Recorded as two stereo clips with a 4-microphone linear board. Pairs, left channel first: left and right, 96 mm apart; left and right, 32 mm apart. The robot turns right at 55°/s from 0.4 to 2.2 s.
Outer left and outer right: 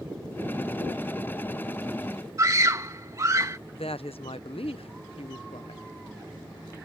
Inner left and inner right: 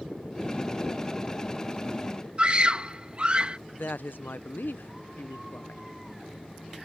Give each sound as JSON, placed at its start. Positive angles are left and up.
{"t": 2.4, "sound": "a scream", "side_deg": -35}
{"t": 3.7, "sound": "a woman speaking", "side_deg": 80}